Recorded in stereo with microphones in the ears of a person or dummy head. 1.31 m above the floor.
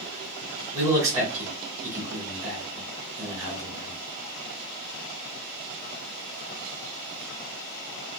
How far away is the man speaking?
About 1.6 m.